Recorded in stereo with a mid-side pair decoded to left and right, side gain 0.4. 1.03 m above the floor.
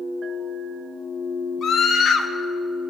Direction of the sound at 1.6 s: 65° left.